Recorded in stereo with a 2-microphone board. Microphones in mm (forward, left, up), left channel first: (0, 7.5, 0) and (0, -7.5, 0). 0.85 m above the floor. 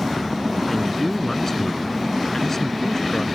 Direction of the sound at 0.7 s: 25° left (ahead or behind).